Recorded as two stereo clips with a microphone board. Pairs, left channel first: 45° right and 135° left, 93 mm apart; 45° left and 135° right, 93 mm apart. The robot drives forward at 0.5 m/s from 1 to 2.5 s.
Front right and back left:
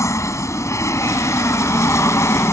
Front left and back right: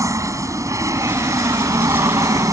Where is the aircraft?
90° right; by 2.5 s 95° right.